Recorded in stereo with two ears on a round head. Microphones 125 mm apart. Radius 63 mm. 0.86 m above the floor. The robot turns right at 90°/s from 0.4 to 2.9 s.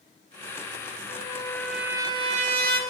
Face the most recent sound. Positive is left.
turn(degrees=-70)